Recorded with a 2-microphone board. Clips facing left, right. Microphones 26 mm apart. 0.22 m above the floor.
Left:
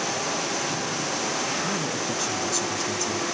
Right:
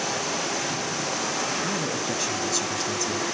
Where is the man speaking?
15° right (ahead or behind), 1.3 m.